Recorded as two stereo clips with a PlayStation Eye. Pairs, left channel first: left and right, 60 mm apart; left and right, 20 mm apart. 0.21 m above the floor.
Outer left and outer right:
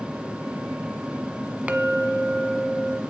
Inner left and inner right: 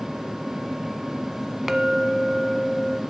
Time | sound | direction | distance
1.7 | a clink | 25° right (ahead or behind) | 0.8 m